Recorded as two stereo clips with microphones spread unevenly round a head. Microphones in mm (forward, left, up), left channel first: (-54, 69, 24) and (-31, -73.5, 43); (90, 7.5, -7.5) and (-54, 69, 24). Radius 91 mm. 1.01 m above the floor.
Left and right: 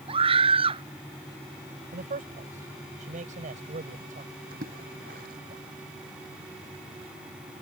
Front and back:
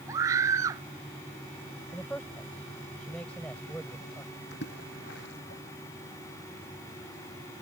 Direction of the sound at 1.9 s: 110° right.